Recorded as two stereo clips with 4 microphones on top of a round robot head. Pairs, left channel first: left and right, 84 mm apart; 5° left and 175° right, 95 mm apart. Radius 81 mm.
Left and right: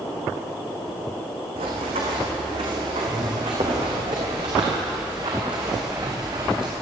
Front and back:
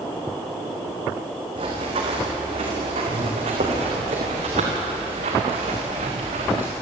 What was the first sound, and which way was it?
Running footsteps, 125° right.